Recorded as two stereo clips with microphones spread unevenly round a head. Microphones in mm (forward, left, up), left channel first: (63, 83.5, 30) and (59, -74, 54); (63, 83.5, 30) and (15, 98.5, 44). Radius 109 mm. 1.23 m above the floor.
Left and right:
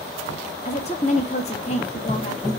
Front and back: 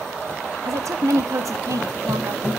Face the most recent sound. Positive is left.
turn(degrees=145)